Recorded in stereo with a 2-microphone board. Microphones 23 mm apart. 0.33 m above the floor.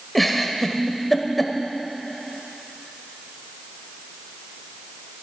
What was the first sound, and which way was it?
A giggle, 5° left (ahead or behind).